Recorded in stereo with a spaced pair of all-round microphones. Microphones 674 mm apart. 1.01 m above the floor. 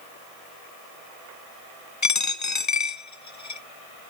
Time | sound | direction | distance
2.0 | a dropped coin | 25° left (ahead or behind) | 0.9 m